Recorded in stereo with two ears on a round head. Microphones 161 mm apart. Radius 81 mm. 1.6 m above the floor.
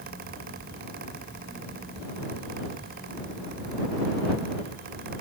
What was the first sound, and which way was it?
Only background noise.